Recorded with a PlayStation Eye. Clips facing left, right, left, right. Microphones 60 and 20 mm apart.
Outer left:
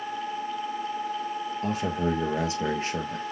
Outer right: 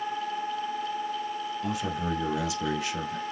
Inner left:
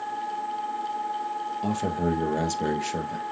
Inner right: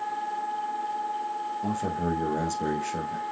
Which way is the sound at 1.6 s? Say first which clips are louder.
Outer left 4 dB, inner left 3 dB; 40° left (ahead or behind).